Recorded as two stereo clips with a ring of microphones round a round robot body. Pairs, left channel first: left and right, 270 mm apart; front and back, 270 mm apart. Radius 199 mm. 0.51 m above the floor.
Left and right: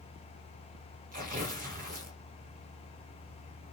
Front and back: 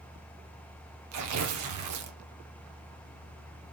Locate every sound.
1.1 s tearing paper: 155° right, 0.5 m